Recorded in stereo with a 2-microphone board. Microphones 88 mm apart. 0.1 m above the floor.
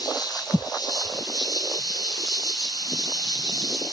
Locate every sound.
0.0 s an insect: 50° left (ahead or behind), 2.5 m